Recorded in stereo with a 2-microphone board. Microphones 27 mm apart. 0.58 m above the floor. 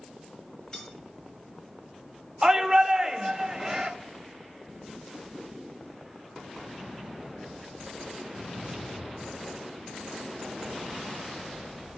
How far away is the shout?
About 1.8 m.